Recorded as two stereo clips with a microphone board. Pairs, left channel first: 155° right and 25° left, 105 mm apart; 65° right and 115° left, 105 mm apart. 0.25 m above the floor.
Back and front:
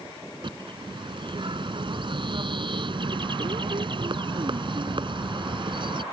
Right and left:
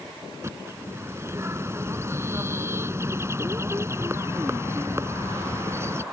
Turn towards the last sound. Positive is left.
turn(degrees=50)